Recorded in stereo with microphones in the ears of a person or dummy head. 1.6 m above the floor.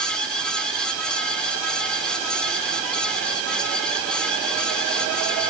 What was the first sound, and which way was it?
Only background noise.